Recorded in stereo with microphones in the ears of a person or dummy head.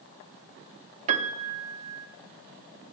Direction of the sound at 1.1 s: 35° right (ahead or behind).